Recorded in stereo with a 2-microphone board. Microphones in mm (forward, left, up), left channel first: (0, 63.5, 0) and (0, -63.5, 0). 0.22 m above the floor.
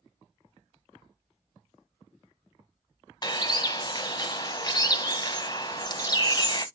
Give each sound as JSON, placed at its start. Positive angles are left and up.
{"t": 3.2, "sound": "a bird", "side_deg": 35, "distance_m": 0.7}